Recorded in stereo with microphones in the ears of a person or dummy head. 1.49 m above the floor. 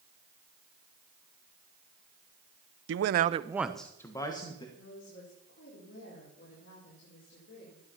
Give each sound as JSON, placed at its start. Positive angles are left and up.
{"t": 2.9, "sound": "a man speaking", "side_deg": -80, "distance_m": 0.8}
{"t": 4.8, "sound": "a woman speaking", "side_deg": 65, "distance_m": 4.5}